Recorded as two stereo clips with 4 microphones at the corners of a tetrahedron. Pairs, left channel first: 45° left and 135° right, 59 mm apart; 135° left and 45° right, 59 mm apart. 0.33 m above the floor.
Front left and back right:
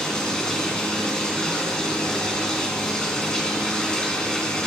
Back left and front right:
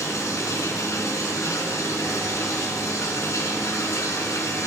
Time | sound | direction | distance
0.0 | running water | 120° left | 2 m